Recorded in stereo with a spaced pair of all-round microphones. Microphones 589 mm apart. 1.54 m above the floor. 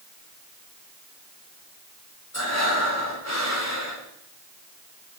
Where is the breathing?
25° left (ahead or behind), 3 m.